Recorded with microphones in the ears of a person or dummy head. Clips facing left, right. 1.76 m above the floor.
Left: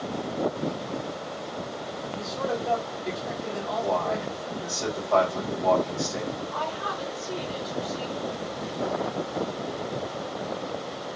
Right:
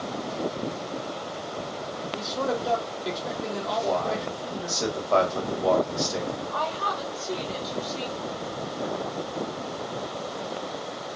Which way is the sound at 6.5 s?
30° right (ahead or behind).